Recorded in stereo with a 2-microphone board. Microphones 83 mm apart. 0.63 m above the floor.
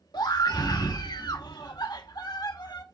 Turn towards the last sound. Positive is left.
turn(degrees=60)  # may be behind; listen again after turning